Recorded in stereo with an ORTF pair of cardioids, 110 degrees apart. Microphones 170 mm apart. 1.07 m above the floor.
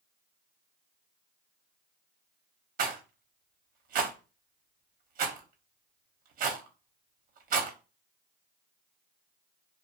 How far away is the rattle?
About 0.7 m.